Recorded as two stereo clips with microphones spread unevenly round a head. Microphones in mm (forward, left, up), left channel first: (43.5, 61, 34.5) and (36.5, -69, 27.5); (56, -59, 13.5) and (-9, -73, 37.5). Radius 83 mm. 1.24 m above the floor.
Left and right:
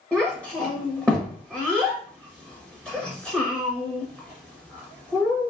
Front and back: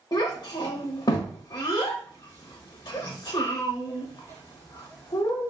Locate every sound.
0.1 s a child speaking: 15° right, 0.8 m